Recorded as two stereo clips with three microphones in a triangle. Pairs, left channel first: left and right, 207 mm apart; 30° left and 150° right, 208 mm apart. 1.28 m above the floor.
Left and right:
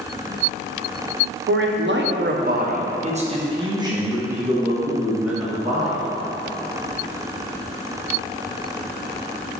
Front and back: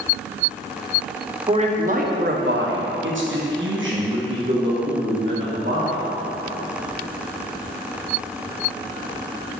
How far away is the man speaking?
About 0.9 m.